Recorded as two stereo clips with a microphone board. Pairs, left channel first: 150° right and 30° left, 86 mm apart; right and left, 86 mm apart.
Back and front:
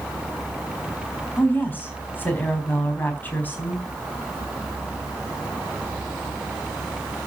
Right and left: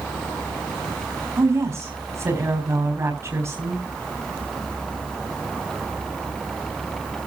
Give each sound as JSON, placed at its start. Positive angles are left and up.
{"t": 1.4, "sound": "a woman speaking", "azimuth_deg": 145, "distance_m": 4.0}